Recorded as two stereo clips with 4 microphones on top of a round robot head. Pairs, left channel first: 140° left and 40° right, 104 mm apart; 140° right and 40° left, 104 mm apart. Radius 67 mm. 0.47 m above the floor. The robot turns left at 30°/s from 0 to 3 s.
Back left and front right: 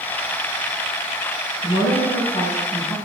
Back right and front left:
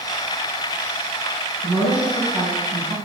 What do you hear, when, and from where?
1.6 s a woman speaking: 140° left, 3 m; by 3.0 s 100° left, 3 m